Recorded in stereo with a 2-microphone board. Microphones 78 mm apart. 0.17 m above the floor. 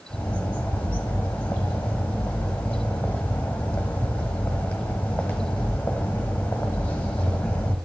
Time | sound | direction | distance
0.1 | a bird | 20° left (ahead or behind) | 1.4 m